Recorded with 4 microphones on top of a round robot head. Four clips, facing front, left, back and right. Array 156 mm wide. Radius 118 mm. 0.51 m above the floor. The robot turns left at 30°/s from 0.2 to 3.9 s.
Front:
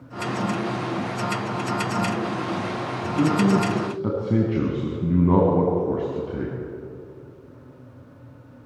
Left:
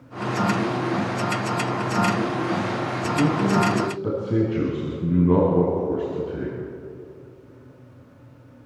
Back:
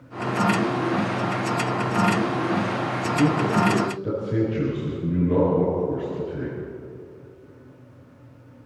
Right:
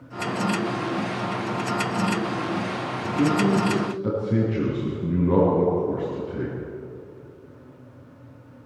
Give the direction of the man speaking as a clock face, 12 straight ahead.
11 o'clock.